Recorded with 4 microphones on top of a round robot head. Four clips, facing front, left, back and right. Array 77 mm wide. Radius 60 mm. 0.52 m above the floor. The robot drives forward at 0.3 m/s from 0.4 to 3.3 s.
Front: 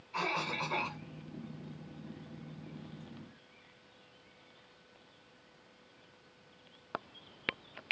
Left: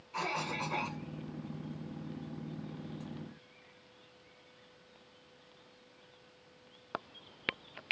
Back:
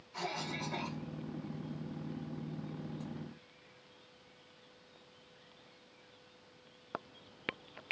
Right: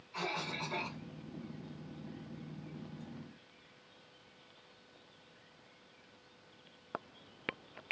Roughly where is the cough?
Ahead left.